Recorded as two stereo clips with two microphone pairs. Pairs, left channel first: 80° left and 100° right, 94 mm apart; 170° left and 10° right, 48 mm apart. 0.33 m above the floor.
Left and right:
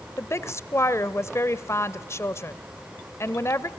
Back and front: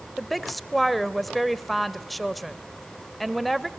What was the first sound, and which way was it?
A woman speaking, 80° left.